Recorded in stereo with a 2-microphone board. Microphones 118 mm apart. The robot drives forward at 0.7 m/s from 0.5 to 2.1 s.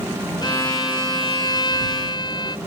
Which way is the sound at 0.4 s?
35° left (ahead or behind).